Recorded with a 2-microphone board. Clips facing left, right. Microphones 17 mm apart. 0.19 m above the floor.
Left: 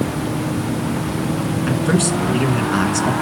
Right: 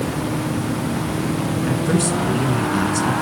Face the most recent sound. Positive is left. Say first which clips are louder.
# left 2 dB
turn(degrees=25)  # may be behind; listen again after turning